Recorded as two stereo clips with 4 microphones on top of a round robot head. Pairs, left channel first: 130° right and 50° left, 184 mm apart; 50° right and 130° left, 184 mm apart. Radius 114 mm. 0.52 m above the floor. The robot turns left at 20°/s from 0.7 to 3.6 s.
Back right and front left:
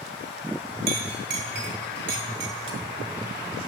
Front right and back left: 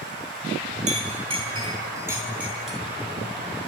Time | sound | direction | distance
0.9 | a clink | 80° left | 2.5 m